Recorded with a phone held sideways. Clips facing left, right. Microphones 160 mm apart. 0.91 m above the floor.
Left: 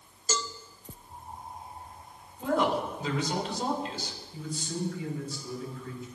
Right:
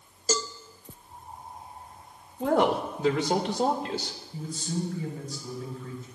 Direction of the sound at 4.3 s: 40° right (ahead or behind).